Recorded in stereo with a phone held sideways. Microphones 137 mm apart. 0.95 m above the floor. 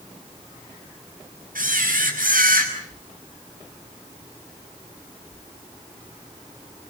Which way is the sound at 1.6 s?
85° right.